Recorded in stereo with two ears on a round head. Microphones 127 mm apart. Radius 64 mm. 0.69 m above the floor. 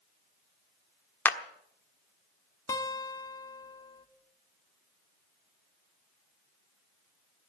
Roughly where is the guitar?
Left.